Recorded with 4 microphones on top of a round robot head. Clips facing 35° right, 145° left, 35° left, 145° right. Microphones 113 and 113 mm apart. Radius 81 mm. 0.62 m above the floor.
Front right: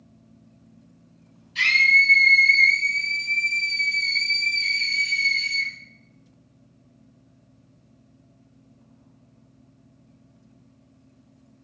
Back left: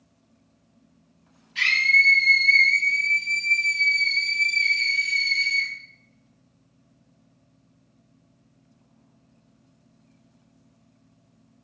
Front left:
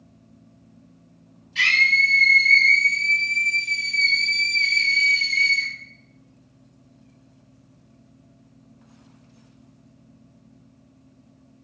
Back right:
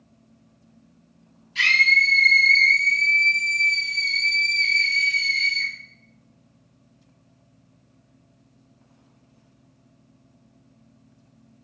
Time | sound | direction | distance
1.6 | a scream | 95° right | 2.0 m